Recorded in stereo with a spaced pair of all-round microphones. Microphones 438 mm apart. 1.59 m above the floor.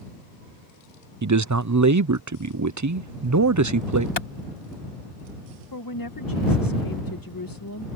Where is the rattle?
I don't hear a rattle.